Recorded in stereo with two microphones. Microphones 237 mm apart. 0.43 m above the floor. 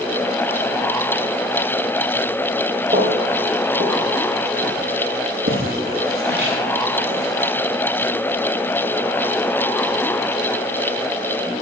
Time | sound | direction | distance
2.9 | footsteps | 30° right (ahead or behind) | 10 m